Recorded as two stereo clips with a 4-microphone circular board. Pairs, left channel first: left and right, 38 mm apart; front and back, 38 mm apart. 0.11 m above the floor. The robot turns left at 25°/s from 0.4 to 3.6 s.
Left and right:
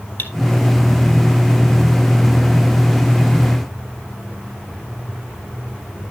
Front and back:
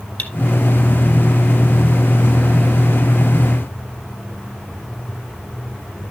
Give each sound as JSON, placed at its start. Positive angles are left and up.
{"t": 0.2, "sound": "cutlery clinking", "azimuth_deg": 50, "distance_m": 2.0}